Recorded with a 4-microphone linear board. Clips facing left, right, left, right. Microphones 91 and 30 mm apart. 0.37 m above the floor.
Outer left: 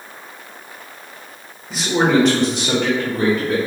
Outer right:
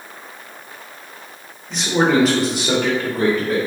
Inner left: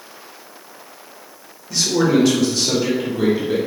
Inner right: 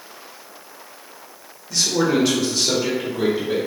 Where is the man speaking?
5° left (ahead or behind), 0.8 m; by 3.6 s 10° right (ahead or behind), 1.4 m.